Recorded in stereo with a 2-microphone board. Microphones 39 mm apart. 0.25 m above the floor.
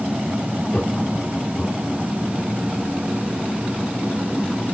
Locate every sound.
0.7 s laughter: 45° left (ahead or behind), 1.7 m; by 2.0 s 35° left (ahead or behind), 2.5 m